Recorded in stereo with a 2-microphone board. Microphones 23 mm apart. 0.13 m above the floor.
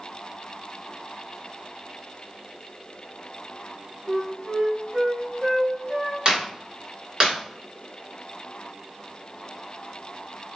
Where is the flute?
35° right (ahead or behind), 1.4 m.